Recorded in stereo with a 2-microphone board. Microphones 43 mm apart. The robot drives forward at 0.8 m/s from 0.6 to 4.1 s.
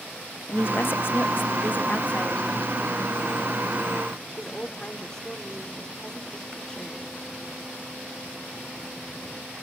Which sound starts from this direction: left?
A woman speaking, at 0.5 s.